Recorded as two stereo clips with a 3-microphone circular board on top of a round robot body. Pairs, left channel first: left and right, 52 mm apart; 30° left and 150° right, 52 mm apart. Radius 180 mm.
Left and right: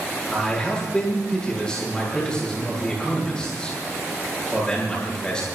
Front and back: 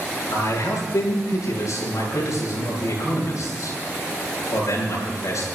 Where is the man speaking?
15° left, 9.5 m.